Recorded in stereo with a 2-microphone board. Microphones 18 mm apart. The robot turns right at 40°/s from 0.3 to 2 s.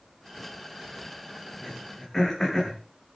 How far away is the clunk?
No clunk in this recording.